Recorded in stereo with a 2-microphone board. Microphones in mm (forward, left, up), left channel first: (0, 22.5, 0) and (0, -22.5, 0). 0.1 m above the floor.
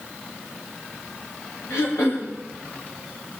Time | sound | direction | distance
1.7 | throat clearing | 75° left (ahead or behind) | 8.5 m